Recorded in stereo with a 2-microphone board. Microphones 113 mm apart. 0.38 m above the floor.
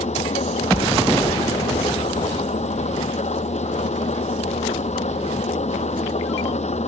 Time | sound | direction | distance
0.0 | an engine running | 80° left | ?